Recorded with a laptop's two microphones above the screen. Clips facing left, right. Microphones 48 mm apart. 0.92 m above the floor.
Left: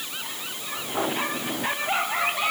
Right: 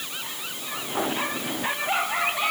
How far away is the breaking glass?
I don't hear breaking glass.